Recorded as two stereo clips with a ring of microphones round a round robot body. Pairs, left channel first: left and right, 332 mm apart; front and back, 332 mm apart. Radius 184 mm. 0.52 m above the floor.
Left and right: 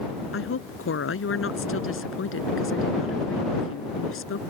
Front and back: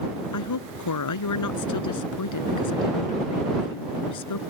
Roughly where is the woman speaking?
Ahead left.